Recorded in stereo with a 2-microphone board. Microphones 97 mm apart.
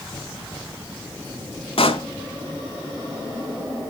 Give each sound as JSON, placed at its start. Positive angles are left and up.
{"t": 1.8, "sound": "a pop", "side_deg": 75, "distance_m": 0.7}